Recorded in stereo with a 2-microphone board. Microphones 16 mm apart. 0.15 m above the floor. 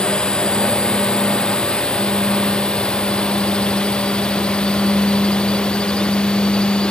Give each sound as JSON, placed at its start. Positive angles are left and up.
{"t": 0.0, "sound": "a drone", "side_deg": 65}